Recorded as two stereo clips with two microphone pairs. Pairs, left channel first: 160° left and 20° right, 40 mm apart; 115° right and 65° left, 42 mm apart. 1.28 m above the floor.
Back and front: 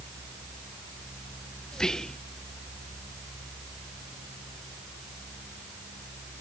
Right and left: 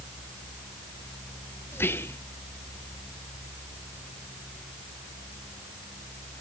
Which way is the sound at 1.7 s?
125° right.